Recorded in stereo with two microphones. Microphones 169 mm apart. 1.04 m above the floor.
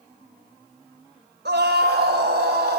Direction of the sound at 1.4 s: 80° right.